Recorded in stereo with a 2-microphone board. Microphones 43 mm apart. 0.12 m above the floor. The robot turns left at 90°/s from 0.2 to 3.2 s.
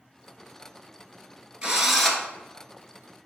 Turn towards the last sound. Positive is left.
turn(degrees=70)